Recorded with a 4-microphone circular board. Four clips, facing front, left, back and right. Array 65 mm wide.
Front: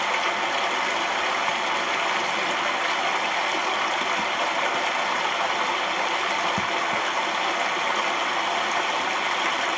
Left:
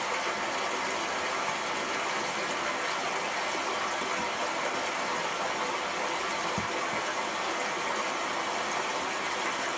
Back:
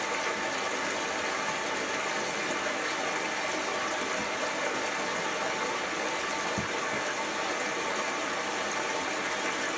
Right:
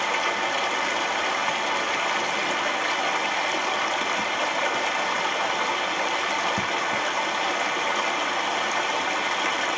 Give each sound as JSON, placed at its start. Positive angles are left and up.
{"t": 0.0, "sound": "running water", "azimuth_deg": -30, "distance_m": 1.0}